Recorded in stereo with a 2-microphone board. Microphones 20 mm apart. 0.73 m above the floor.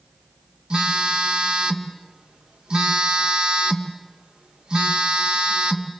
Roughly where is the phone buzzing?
Right.